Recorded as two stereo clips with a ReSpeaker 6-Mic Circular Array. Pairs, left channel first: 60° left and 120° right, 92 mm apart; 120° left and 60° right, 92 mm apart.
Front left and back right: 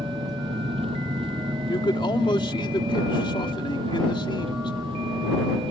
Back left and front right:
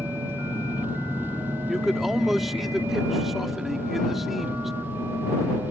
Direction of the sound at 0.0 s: 130° right.